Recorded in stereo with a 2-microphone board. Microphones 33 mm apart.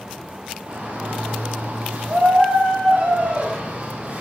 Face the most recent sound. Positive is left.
turn(degrees=-55)  # may be behind; listen again after turning